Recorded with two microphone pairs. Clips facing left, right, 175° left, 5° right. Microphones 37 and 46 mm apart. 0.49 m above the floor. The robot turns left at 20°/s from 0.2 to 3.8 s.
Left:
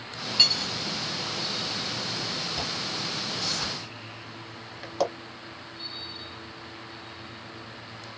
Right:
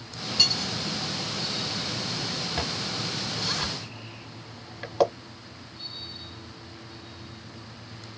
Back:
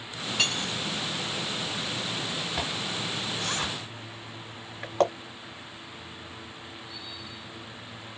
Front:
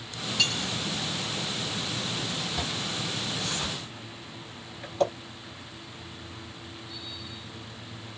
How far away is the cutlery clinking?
About 0.9 m.